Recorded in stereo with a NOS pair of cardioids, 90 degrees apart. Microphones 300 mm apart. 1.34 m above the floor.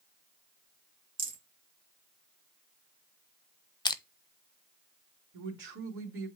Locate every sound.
1.2 s a rattle: 30° right, 2 m
3.9 s crushing: 15° left, 0.7 m
5.3 s a man speaking: 45° right, 2.5 m